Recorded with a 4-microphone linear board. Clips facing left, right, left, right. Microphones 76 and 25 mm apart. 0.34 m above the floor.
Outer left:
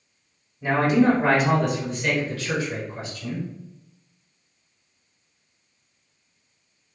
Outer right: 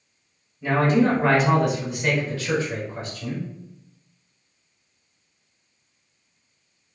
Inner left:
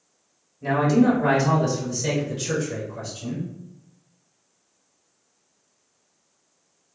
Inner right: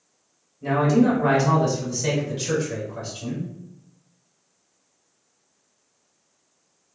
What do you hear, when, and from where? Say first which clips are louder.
0.6 s a man speaking: outer left 1 dB, even; 20° left (ahead or behind), 1.2 m; by 3.5 s 40° right (ahead or behind), 1.4 m